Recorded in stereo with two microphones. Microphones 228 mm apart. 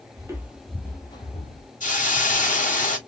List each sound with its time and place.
0.2 s footsteps: 15° right (ahead or behind), 1.2 m; by 1.7 s 35° left (ahead or behind), 1.2 m
1.8 s a hiss: 35° left (ahead or behind), 1.2 m